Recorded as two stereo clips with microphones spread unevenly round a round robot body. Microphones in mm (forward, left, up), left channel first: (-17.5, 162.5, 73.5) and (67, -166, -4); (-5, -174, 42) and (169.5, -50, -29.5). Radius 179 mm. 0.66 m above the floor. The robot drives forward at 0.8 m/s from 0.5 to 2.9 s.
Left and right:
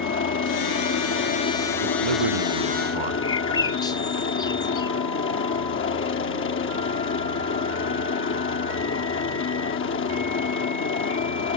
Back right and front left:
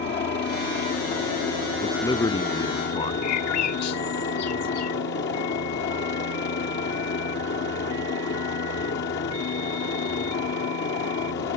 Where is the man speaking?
70° right; by 3.1 s 80° right.